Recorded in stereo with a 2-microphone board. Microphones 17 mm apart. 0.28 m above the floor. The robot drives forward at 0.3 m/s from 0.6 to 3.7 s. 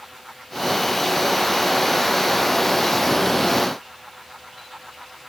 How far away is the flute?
No flute in this recording.